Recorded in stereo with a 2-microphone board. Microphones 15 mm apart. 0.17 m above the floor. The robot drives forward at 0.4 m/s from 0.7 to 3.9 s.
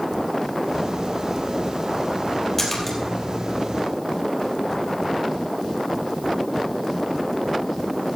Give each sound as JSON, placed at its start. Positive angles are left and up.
{"t": 2.6, "sound": "a splash", "side_deg": 15, "distance_m": 3.5}